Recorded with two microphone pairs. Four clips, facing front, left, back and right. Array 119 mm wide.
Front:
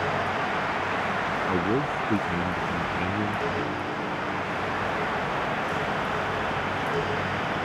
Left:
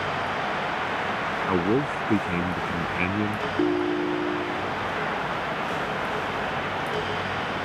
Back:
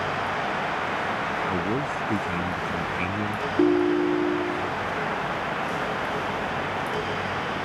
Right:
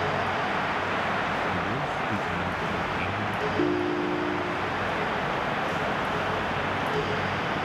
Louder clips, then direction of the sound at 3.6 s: Left 3 dB, back 10 dB; 175° left.